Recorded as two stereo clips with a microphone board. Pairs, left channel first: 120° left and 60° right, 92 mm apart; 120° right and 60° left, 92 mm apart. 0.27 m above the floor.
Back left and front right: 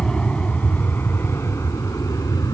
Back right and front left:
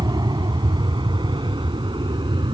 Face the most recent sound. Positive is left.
turn(degrees=75)